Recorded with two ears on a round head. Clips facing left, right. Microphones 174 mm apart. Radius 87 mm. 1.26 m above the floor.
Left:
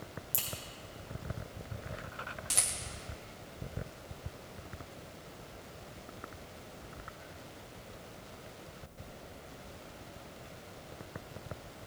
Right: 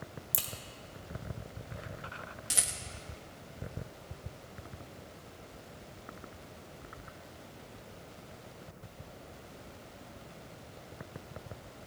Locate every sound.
0.3 s a crack: 20° right (ahead or behind), 1.1 m
2.5 s a rattle: 10° right (ahead or behind), 0.8 m